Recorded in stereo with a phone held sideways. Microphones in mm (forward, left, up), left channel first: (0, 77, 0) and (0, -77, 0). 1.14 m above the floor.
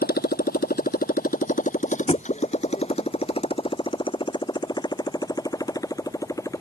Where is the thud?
40° left (ahead or behind).